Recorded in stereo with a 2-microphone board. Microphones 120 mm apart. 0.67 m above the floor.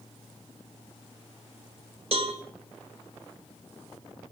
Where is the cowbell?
50° right (ahead or behind), 2.5 m.